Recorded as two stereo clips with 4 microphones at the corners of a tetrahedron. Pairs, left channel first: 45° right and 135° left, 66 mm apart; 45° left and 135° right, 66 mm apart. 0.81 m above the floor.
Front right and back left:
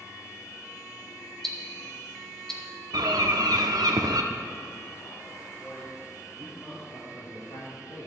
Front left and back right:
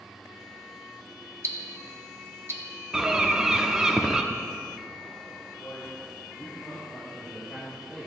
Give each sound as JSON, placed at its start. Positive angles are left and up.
{"t": 1.4, "sound": "ticking", "azimuth_deg": -125, "distance_m": 1.1}
{"t": 2.9, "sound": "a bird", "azimuth_deg": 145, "distance_m": 0.7}
{"t": 5.6, "sound": "a man speaking", "azimuth_deg": 20, "distance_m": 3.0}
{"t": 6.9, "sound": "a man speaking", "azimuth_deg": -25, "distance_m": 2.0}